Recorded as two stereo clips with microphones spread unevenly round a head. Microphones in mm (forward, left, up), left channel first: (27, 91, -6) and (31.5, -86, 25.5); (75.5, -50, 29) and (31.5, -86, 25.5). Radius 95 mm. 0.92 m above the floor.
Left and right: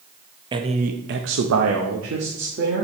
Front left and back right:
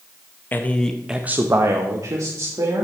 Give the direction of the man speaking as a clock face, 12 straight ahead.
1 o'clock.